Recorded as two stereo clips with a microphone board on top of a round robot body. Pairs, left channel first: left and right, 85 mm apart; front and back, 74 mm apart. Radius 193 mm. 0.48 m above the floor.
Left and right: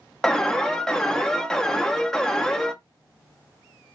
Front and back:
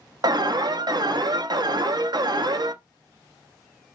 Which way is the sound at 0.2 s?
175° left.